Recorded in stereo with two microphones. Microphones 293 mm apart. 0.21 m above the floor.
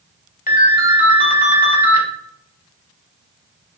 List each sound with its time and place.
0.5 s a ringtone: 30° left (ahead or behind), 0.6 m